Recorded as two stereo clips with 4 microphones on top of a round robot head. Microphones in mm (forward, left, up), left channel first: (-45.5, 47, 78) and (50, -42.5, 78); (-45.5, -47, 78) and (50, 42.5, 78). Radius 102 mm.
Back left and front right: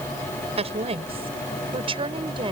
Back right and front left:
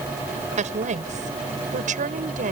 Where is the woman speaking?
5° left; by 2.5 s 15° left.